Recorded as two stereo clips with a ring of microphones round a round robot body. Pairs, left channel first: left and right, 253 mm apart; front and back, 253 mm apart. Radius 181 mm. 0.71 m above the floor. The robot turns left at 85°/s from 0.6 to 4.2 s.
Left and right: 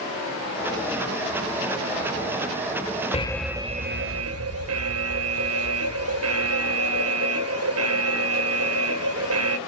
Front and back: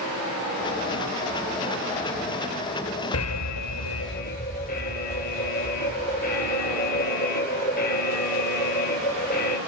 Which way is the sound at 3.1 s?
25° left.